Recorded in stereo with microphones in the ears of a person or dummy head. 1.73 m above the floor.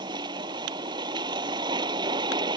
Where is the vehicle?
25° right (ahead or behind).